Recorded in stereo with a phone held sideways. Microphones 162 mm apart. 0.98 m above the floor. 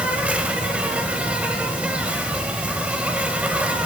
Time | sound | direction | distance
0.0 | an insect | 10° right (ahead or behind) | 1.9 m